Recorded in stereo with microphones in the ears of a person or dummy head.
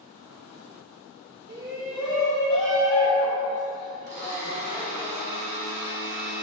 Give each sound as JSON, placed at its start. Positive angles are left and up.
{"t": 1.5, "sound": "a shout", "side_deg": -30, "distance_m": 0.6}
{"t": 4.1, "sound": "a blender", "side_deg": -50, "distance_m": 1.9}